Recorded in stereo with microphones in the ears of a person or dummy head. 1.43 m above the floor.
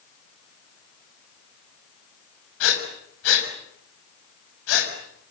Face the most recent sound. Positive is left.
turn(degrees=75)  # may be behind; listen again after turning